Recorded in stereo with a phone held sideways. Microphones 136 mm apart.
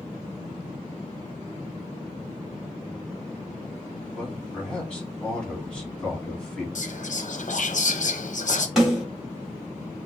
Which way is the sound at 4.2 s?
5° left (ahead or behind).